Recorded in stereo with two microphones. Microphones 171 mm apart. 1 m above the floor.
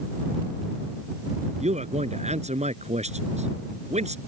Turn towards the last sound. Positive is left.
turn(degrees=-40)  # may be behind; listen again after turning